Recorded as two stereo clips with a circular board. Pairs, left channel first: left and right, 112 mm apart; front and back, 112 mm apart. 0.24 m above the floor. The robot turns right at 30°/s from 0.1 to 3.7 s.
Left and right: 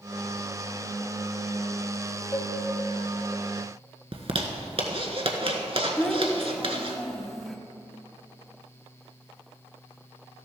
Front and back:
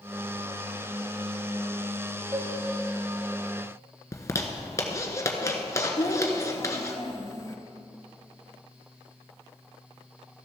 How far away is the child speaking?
About 1.2 m.